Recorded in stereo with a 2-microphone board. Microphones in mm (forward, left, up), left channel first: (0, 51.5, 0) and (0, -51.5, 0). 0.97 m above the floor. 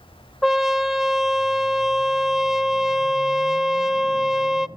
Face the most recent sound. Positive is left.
turn(degrees=0)  # may be behind; listen again after turning